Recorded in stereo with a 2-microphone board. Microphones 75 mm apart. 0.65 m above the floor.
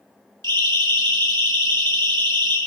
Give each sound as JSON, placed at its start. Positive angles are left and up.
{"t": 0.4, "sound": "a siren", "side_deg": -75, "distance_m": 7.0}